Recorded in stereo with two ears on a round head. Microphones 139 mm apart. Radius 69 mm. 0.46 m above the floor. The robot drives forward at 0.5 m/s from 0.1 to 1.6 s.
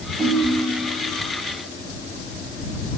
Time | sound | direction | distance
0.2 | a ringtone | centre (ahead or behind) | 1.6 m